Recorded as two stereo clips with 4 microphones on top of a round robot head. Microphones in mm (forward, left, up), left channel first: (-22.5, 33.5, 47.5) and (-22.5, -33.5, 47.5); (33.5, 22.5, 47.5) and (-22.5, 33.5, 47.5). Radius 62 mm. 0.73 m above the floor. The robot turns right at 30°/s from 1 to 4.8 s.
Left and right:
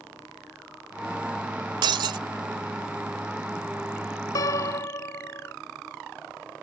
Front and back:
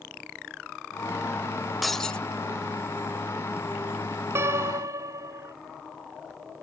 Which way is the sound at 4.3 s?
125° left.